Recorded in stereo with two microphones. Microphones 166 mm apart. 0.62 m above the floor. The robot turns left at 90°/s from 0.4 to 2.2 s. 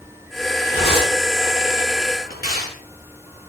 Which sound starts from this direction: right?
Tearing paper, at 0.7 s.